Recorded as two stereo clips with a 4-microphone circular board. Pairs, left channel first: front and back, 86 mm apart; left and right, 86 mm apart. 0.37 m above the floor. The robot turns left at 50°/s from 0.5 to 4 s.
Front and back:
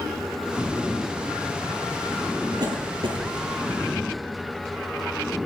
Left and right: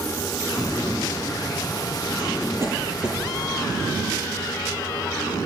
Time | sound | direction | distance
2.6 | a cough | 135° right | 8.5 m